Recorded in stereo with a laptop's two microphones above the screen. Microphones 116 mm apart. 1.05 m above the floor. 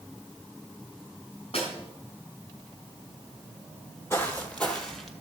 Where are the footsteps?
20° left (ahead or behind), 1.8 m; by 5.1 s centre (ahead or behind), 1.7 m.